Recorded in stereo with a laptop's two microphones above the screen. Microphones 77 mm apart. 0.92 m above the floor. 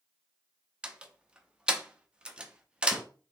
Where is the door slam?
15° right (ahead or behind), 0.8 m.